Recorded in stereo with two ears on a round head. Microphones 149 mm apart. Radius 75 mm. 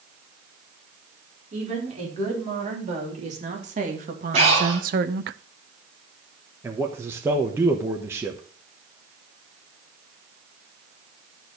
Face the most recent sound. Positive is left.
turn(degrees=-15)  # may be behind; listen again after turning